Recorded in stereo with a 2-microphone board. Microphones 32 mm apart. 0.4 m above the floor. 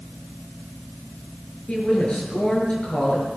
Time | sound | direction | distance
1.7 | a woman speaking | 30° left (ahead or behind) | 6.5 m